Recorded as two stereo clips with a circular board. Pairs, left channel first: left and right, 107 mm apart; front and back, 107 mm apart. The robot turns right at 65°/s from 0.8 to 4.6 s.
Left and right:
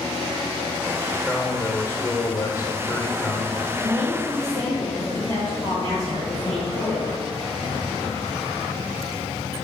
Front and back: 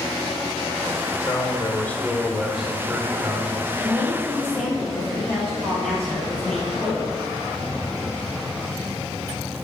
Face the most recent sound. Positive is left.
turn(degrees=80)